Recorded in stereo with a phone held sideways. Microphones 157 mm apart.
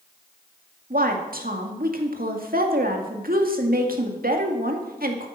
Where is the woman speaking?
70° right (ahead or behind), 2 m.